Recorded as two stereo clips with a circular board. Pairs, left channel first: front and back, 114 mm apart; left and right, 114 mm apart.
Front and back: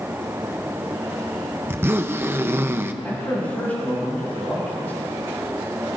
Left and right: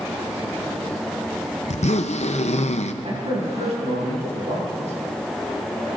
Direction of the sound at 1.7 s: 110° left.